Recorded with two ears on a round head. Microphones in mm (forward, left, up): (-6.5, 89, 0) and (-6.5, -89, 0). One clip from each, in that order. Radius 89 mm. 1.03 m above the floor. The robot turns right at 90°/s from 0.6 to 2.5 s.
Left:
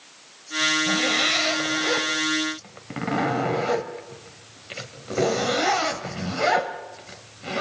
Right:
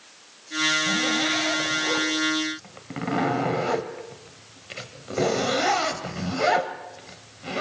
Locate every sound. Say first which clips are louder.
0.9 s a zipper: left 2 dB; 30° left, 1.5 m; by 7.6 s straight behind, 1.5 m